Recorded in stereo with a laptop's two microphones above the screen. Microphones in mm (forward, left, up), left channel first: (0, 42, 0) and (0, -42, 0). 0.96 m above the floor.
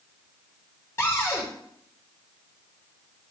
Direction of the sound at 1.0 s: 30° left (ahead or behind).